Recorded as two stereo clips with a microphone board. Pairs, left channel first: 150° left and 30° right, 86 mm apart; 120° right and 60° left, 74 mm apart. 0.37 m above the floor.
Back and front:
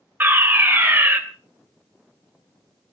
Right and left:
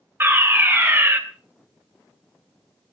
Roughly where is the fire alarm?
Ahead.